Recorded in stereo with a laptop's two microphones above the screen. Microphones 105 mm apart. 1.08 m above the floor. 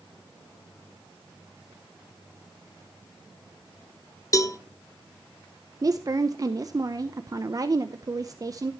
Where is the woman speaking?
35° right (ahead or behind), 0.8 m.